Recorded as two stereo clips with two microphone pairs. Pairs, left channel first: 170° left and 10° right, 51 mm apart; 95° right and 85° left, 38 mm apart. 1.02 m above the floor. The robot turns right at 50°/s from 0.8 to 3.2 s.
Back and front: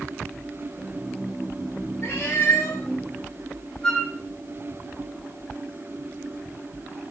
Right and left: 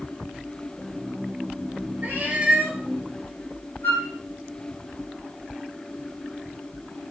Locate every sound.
2.0 s a cat meowing: 135° left, 1.0 m; by 2.8 s 175° left, 1.0 m
3.8 s a flute: 105° right, 1.4 m